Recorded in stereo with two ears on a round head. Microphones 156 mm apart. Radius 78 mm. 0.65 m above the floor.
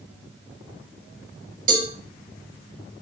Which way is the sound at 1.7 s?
50° right (ahead or behind).